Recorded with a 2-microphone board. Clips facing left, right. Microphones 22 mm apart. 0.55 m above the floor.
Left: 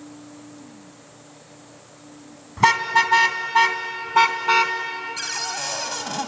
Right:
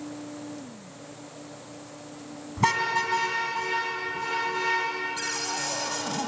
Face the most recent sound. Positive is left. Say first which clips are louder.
# left 3 dB
turn(degrees=25)  # may be behind; listen again after turning